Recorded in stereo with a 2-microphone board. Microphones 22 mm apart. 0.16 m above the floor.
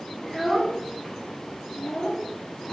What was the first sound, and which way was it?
A child speaking, 5° right (ahead or behind).